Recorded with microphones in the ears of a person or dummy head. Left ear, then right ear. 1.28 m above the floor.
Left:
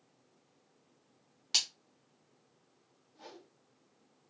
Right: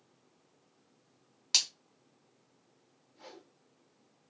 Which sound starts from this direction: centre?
A splash, at 1.5 s.